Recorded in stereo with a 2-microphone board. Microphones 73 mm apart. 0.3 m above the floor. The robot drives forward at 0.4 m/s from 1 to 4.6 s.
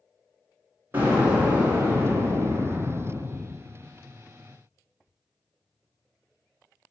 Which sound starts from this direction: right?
An explosion, at 0.9 s.